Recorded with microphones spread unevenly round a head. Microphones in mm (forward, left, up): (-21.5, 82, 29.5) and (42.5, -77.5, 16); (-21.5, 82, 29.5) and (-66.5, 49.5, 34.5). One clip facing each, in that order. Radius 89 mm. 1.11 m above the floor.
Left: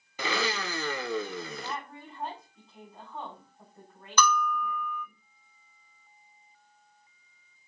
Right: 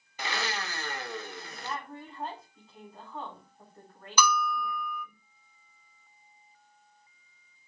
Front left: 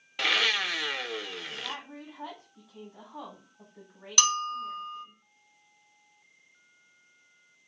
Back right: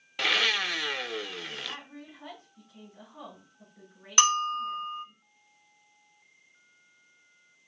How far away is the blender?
About 0.6 m.